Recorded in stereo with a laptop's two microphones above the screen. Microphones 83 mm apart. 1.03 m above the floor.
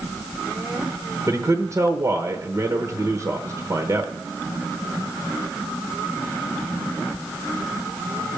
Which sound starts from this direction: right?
A man speaking, at 1.3 s.